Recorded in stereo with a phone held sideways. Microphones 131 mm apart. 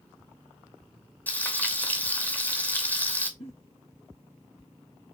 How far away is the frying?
About 1.0 m.